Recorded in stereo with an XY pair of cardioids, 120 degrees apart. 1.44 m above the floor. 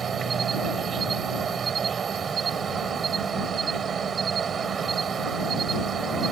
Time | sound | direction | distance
0.0 | an insect | 40° right | ?